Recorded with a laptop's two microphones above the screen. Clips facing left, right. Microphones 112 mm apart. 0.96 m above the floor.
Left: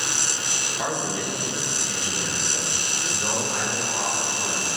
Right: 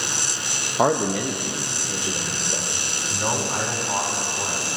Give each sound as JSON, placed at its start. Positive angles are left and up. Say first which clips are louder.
{"t": 0.8, "sound": "a man speaking", "louder": "right 8 dB", "side_deg": -50, "distance_m": 0.6}
{"t": 2.9, "sound": "a man speaking", "louder": "right 5 dB", "side_deg": -45, "distance_m": 2.5}